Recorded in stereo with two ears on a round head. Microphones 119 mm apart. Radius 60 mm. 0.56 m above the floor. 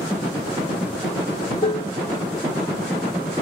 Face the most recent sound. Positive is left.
turn(degrees=40)  # may be behind; listen again after turning